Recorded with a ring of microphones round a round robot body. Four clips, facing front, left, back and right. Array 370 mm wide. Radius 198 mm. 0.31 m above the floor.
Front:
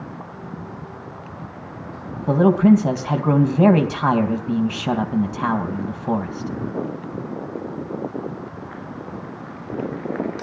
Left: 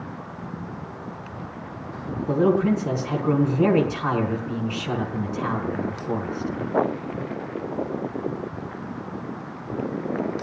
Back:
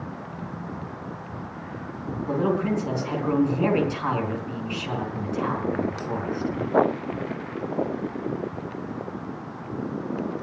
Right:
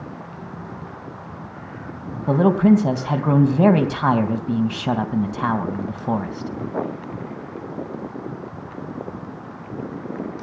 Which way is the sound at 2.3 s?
50° right.